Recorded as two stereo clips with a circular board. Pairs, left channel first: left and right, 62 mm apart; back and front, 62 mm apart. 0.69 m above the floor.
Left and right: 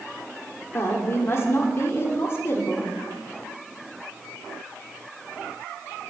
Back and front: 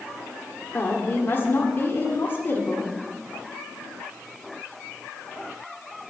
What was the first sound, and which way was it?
A woman speaking, 130° left.